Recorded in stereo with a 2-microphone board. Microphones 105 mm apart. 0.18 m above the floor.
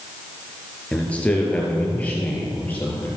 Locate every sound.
0.9 s a man speaking: 10° left (ahead or behind), 4 m; by 3.1 s 15° left (ahead or behind), 5 m